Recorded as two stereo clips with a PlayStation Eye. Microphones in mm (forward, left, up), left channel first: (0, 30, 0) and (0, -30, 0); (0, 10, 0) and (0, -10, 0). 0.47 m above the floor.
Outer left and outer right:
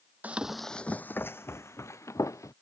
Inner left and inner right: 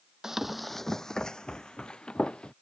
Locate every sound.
0.2 s running footsteps: 25° right (ahead or behind); by 2.5 s 60° left (ahead or behind)